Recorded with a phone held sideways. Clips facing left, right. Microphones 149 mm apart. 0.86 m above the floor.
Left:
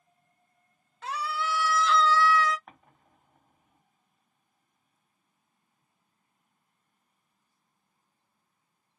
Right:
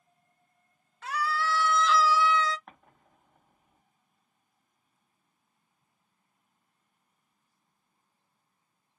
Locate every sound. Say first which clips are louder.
1.0 s a scream: right 2 dB; 30° left (ahead or behind), 0.9 m; by 2.6 s 30° right (ahead or behind), 0.7 m
2.7 s an explosion: even; centre (ahead or behind), 1.8 m